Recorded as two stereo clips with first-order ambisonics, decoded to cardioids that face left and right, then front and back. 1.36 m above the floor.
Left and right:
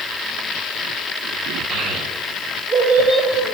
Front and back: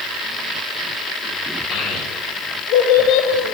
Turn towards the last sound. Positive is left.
turn(degrees=-15)